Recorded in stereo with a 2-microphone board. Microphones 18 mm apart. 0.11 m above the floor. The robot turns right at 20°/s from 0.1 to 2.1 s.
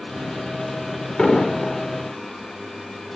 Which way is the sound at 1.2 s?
60° left (ahead or behind).